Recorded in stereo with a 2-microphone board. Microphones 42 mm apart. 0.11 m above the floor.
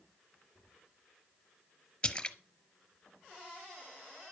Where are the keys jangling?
No keys jangling in this recording.